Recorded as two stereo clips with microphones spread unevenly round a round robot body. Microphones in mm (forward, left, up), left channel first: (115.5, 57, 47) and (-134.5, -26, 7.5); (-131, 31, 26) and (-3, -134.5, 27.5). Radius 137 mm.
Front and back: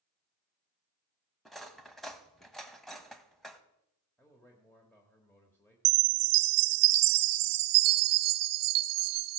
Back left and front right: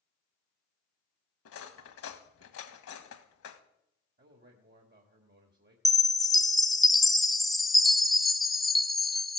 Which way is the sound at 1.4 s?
110° left.